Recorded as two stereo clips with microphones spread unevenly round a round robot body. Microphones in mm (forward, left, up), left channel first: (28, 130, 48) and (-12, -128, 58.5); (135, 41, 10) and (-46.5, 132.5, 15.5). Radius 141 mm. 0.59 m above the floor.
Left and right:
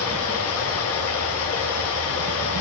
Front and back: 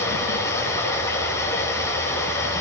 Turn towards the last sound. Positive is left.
turn(degrees=50)